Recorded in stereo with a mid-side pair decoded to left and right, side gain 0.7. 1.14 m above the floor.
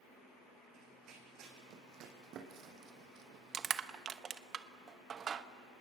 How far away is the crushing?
About 0.9 m.